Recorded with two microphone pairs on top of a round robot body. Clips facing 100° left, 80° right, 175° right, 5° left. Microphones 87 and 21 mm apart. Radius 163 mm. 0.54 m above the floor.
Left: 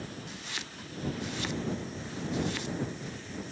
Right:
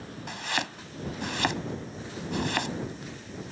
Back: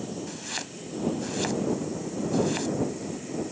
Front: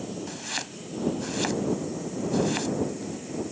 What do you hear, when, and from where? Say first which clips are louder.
0.3 s chopping: right 10 dB, front 2 dB; 75° right